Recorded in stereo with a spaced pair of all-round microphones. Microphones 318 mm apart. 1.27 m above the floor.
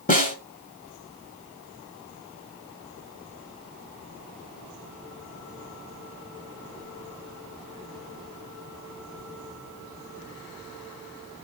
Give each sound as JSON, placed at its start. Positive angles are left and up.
{"t": 0.1, "sound": "a snare drum", "side_deg": 25, "distance_m": 1.4}